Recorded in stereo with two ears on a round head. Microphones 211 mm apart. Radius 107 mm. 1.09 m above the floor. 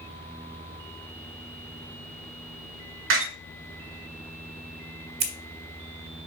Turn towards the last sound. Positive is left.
turn(degrees=-25)  # may be behind; listen again after turning